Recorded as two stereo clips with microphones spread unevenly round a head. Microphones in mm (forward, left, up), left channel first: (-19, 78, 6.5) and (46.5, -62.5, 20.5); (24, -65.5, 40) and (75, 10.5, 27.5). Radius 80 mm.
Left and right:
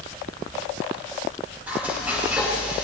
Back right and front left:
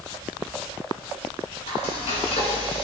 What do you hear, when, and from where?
1.7 s frying: 145° right, 7.5 m